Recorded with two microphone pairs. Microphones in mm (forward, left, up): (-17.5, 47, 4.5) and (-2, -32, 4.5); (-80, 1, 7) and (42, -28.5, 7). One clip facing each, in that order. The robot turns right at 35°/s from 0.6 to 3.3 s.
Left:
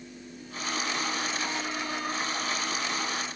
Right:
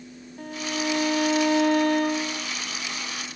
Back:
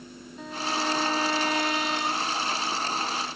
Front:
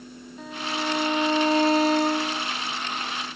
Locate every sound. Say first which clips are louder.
0.4 s a violin: right 5 dB, even; 100° right; by 2.5 s 35° right